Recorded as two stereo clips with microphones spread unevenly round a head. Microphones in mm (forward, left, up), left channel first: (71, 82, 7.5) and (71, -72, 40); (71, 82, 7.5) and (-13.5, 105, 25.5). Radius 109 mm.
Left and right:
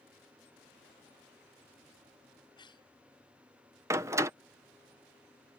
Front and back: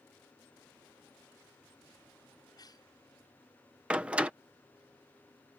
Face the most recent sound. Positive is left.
turn(degrees=-140)